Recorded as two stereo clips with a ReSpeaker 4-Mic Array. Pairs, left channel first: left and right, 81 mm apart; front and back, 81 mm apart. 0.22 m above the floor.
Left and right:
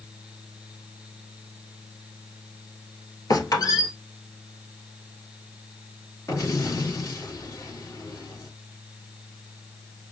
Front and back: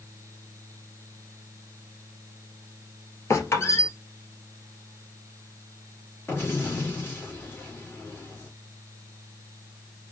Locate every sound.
3.3 s a squeak: 50° left, 1.6 m
6.3 s an explosion: 50° left, 2.5 m